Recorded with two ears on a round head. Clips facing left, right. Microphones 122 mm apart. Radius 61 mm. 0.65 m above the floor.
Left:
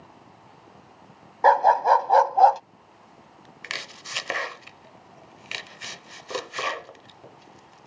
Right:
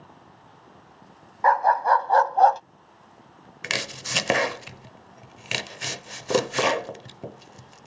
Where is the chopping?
60° right (ahead or behind).